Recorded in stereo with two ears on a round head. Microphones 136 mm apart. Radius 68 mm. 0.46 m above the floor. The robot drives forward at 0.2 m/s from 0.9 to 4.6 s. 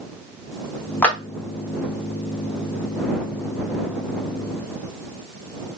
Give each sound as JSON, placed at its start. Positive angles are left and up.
{"t": 1.0, "sound": "a clap", "side_deg": 10, "distance_m": 0.9}